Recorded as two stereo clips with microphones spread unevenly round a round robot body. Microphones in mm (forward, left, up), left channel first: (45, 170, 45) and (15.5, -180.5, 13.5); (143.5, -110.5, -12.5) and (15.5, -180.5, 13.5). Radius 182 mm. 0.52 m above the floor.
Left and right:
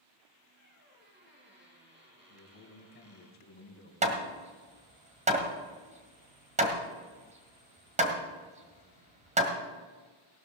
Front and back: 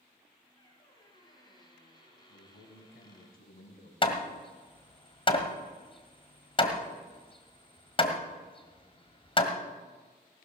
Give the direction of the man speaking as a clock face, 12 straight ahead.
11 o'clock.